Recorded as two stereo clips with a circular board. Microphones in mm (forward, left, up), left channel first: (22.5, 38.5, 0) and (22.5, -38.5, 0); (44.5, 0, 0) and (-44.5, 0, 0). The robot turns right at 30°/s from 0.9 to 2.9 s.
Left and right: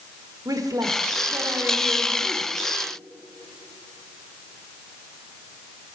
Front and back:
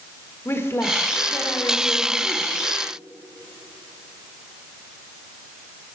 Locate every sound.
0.5 s a woman speaking: 60° right, 1.5 m; by 2.5 s 10° right, 1.5 m